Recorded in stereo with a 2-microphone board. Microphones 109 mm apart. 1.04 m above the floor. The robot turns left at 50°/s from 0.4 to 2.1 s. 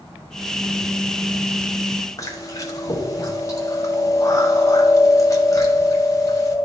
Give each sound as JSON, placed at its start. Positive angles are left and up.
{"t": 2.2, "sound": "chewing", "side_deg": 35, "distance_m": 1.2}